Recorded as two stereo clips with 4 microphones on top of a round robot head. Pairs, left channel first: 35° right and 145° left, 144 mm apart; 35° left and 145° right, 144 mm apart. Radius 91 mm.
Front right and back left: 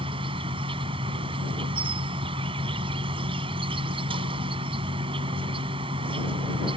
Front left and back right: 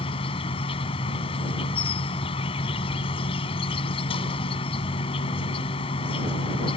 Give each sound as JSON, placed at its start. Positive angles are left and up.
{"t": 0.0, "sound": "an insect", "azimuth_deg": 90}